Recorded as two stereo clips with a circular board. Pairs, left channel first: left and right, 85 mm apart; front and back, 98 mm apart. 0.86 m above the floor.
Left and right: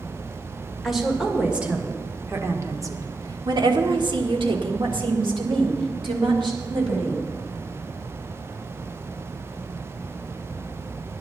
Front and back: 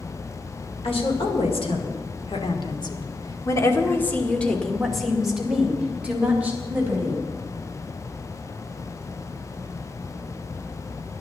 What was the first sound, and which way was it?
A woman speaking, straight ahead.